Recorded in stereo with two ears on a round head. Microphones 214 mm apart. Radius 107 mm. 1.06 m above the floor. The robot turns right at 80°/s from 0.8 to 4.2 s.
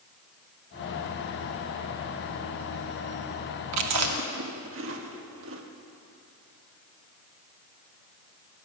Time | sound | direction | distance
3.7 | chewing | 80° right | 1.5 m